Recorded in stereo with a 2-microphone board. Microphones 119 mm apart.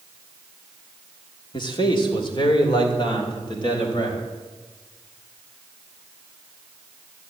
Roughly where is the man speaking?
Left.